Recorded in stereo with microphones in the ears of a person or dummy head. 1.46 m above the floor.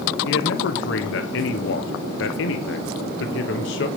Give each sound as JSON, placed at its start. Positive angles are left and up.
{"t": 0.2, "sound": "a man speaking", "side_deg": 65, "distance_m": 1.1}